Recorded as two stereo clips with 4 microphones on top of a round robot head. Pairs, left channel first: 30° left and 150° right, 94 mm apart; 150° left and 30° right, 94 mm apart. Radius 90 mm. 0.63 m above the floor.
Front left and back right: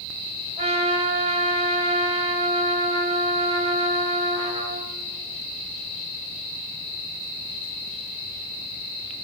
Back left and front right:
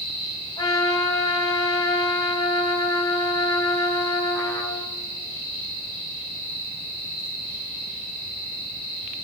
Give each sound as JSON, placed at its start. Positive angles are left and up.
{"t": 0.6, "sound": "a trumpet", "azimuth_deg": -160, "distance_m": 3.0}